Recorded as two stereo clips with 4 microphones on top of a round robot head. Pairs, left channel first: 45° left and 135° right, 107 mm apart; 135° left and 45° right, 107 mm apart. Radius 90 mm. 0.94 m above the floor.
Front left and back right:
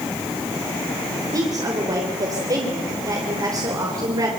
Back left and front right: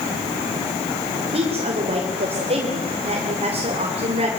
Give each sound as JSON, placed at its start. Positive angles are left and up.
{"t": 1.3, "sound": "a woman speaking", "azimuth_deg": -75, "distance_m": 3.5}